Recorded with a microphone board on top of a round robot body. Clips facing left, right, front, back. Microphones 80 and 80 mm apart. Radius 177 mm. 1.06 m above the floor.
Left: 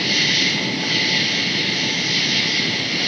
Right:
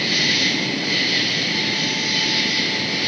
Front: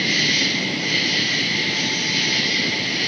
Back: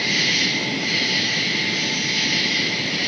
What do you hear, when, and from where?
0.0 s an insect: 90° left, 5 m